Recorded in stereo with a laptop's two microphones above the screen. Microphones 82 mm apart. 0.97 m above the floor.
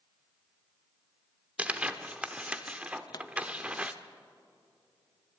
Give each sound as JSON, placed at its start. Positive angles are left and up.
{"t": 1.6, "sound": "tearing paper", "side_deg": -15, "distance_m": 0.9}
{"t": 3.1, "sound": "a pop", "side_deg": 50, "distance_m": 0.5}